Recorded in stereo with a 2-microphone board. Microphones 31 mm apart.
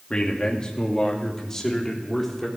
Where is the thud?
No thud in this recording.